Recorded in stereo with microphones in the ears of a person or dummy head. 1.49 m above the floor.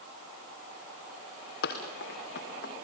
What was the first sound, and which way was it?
Running footsteps, 60° left (ahead or behind).